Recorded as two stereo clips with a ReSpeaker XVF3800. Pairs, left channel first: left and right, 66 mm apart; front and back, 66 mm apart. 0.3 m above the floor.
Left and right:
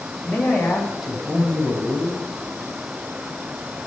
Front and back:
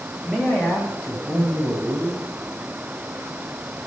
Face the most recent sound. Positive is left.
turn(degrees=-15)